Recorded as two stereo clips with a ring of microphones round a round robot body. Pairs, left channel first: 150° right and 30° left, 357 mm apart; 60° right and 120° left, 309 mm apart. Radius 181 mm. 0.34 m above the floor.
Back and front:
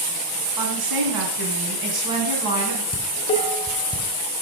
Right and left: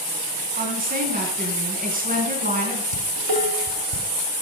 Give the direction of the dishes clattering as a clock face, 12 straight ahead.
8 o'clock.